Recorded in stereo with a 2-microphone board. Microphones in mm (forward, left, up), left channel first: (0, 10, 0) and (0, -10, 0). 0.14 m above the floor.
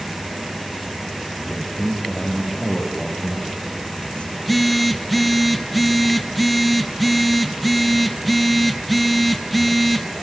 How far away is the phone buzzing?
About 0.8 m.